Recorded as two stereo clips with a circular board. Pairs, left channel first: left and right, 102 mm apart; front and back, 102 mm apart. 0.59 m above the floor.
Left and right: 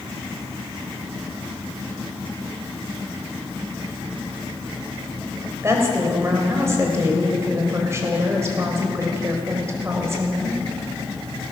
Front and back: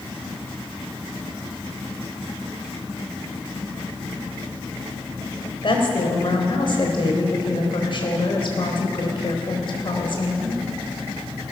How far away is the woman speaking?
About 3 m.